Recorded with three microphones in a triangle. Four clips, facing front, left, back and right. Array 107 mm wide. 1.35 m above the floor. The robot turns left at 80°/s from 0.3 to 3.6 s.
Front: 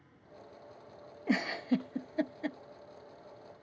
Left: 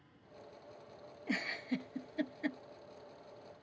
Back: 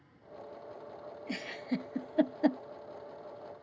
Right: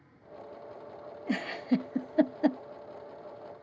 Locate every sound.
1.3 s a giggle: 30° right; by 2.6 s 135° right